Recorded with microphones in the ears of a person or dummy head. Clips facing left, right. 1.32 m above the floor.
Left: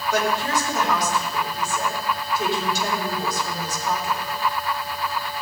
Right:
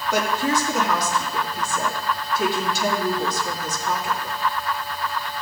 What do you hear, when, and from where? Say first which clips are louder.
0.1 s a woman speaking: right 1 dB; 70° right (ahead or behind), 3.5 m